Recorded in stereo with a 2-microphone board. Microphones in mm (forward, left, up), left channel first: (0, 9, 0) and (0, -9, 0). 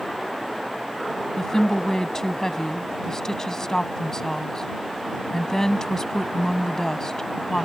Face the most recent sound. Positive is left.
turn(degrees=30)  # may be behind; listen again after turning